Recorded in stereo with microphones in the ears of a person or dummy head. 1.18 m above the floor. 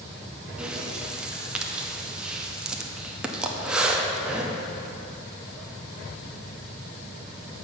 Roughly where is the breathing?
Centre.